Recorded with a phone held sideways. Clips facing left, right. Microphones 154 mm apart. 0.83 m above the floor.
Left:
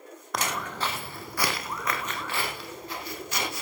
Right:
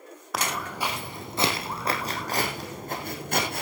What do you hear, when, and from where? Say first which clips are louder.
0.3 s footsteps: right 1 dB; 5° right (ahead or behind), 2.5 m; by 3.6 s 55° right (ahead or behind), 3.5 m